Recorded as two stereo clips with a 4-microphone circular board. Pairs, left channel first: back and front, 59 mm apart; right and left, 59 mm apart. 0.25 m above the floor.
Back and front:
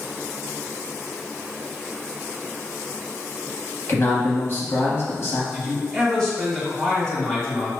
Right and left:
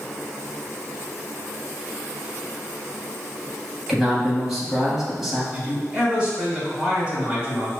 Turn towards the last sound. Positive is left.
turn(degrees=120)